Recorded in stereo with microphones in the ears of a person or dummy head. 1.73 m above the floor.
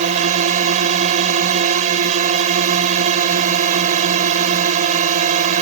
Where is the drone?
45° right (ahead or behind).